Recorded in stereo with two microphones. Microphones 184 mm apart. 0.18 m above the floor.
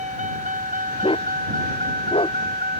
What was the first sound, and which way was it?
A vehicle, 40° right (ahead or behind).